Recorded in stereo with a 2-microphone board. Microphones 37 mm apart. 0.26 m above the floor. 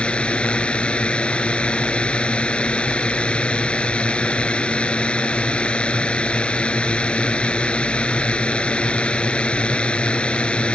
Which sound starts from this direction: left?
A drone, at 0.0 s.